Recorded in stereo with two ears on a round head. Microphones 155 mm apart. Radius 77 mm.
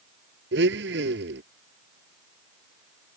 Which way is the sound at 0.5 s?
70° right (ahead or behind).